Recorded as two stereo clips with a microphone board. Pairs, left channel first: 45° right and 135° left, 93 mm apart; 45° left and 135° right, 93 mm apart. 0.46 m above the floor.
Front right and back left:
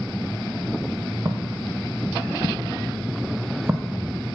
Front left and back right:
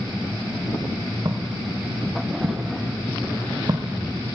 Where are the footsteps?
175° right, 2.5 m; by 4.0 s 160° right, 1.2 m.